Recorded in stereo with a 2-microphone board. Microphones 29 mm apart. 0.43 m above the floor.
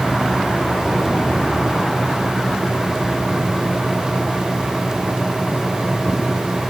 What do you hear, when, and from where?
Only background noise.